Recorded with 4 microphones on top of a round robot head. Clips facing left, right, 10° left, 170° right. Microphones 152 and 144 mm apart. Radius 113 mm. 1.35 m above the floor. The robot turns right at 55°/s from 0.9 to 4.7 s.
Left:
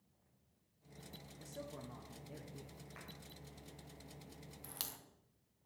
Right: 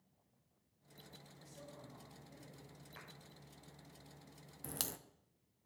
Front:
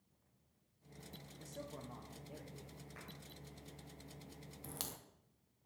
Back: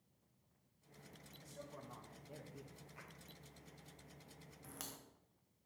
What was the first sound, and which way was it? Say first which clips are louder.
A man speaking: left 7 dB, front 4 dB; 45° left.